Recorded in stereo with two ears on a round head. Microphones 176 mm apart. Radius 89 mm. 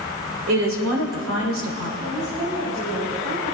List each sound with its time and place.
0.5 s a woman speaking: 75° right (ahead or behind), 3 m
2.0 s a woman speaking: 35° right (ahead or behind), 6 m